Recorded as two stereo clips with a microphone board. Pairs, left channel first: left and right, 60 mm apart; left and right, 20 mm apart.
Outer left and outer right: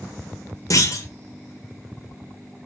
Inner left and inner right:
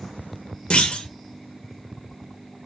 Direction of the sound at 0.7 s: 65° left (ahead or behind).